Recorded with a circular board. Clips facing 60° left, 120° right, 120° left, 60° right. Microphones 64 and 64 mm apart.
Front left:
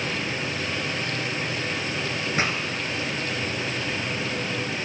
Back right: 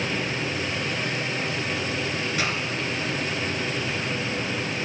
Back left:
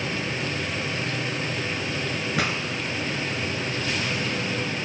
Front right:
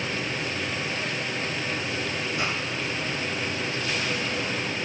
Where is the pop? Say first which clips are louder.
Front left 3 dB, back left 4 dB; 120° left, 0.7 m.